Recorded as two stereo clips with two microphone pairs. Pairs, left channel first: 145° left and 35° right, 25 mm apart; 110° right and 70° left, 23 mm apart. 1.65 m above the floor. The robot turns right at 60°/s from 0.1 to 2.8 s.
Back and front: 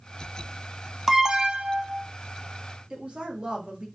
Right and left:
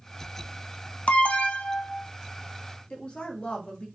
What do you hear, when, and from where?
1.1 s an alarm: 110° right, 0.6 m; by 2.1 s 50° right, 0.6 m
2.9 s a woman speaking: 80° right, 1.6 m